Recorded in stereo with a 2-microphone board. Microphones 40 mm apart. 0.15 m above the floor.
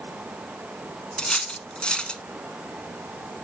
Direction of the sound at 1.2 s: 25° left (ahead or behind).